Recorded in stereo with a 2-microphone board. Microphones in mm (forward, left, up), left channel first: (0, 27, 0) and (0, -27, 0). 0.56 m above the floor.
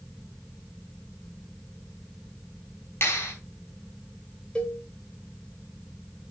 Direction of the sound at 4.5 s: 20° left (ahead or behind).